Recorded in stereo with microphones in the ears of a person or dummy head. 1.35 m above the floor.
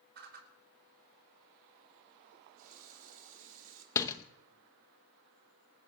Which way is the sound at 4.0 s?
15° left (ahead or behind).